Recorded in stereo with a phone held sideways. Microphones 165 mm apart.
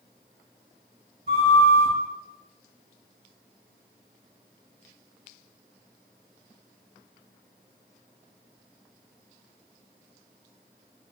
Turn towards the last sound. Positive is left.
turn(degrees=-60)  # may be behind; listen again after turning